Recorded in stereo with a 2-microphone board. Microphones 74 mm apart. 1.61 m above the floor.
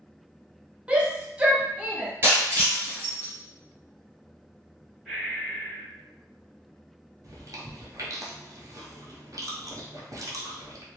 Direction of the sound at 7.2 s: 50° right (ahead or behind).